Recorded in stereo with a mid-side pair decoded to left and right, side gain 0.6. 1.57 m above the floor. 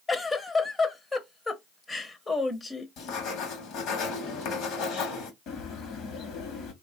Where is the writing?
65° left, 1.0 m.